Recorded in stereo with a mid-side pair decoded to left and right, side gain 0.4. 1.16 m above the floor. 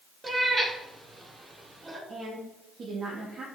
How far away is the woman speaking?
About 1.9 m.